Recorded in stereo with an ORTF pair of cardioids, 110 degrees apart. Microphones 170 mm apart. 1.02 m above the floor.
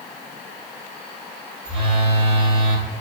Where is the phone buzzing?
30° right, 0.9 m.